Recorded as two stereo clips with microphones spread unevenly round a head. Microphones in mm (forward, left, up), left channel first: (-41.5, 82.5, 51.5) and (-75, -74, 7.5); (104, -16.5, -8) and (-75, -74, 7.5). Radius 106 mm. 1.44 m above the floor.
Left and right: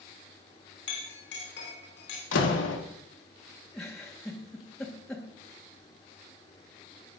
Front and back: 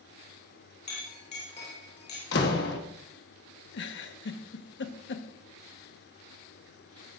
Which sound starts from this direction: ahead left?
A door slam, at 2.3 s.